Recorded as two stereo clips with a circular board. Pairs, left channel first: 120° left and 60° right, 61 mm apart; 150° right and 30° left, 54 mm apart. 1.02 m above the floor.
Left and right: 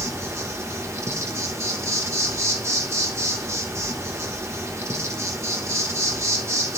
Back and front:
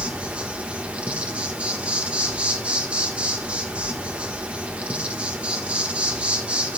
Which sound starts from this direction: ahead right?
An insect, at 0.0 s.